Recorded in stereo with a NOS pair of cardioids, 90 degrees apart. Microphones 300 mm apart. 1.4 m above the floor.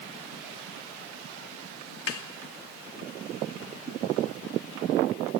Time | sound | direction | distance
2.1 | a snare drum | 50° left | 2.5 m